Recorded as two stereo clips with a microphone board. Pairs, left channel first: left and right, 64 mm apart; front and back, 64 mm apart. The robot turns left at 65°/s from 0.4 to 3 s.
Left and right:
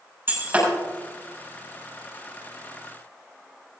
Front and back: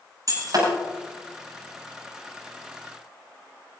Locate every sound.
0.3 s breaking glass: 145° right, 8 m; by 0.7 s 165° right, 8 m